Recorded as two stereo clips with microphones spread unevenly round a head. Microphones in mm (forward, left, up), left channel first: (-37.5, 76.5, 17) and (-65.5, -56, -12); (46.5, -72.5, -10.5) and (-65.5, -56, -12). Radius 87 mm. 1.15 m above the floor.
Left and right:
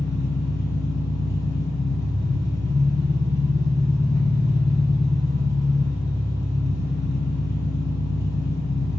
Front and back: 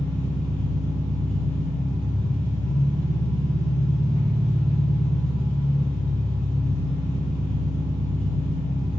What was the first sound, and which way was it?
An engine running, 140° left.